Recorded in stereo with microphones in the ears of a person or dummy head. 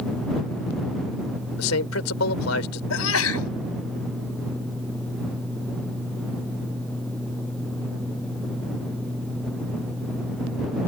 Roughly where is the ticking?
I don't hear ticking.